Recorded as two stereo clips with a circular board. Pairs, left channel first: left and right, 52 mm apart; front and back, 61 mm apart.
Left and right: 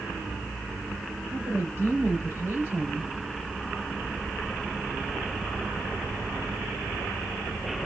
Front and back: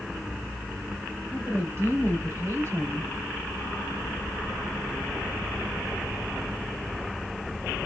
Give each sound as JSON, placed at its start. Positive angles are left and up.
{"t": 1.3, "sound": "a woman speaking", "azimuth_deg": -145, "distance_m": 3.0}